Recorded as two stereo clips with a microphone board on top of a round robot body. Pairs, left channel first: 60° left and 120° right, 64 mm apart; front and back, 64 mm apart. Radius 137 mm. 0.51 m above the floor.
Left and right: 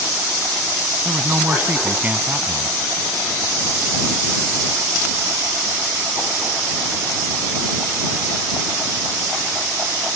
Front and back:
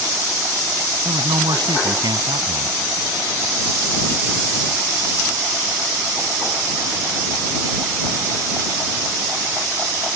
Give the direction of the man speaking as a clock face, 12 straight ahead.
6 o'clock.